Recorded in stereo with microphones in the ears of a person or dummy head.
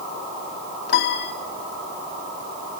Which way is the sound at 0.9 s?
65° left (ahead or behind).